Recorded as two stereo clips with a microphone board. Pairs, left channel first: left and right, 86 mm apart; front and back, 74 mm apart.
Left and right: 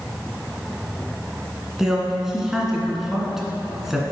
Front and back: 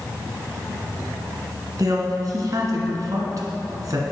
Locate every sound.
1.8 s a man speaking: 175° right, 1.7 m